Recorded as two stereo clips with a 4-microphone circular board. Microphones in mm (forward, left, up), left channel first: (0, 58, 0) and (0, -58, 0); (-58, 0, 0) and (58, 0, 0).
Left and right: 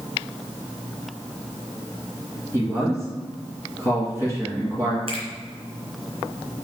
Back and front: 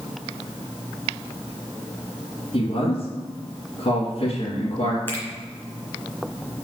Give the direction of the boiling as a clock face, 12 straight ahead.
I don't hear boiling.